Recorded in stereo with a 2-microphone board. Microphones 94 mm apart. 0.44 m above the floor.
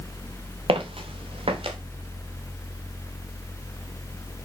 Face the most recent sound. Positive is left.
turn(degrees=-85)